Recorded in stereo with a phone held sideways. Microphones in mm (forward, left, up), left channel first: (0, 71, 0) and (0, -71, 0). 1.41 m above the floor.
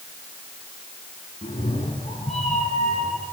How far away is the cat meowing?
About 7.5 m.